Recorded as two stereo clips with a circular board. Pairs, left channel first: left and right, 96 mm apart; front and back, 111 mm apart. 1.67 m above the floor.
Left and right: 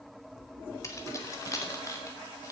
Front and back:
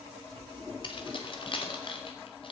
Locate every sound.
0.8 s keys jangling: 35° left, 2.5 m